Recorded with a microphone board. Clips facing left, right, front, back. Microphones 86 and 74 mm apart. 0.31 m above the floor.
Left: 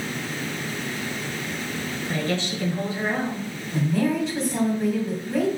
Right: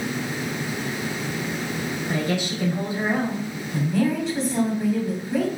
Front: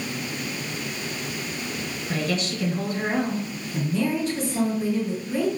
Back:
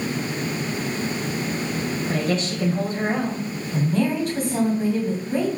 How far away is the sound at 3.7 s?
About 2 m.